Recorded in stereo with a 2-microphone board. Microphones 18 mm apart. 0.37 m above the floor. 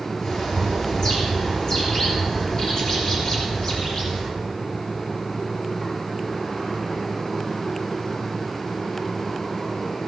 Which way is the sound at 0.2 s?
40° left (ahead or behind).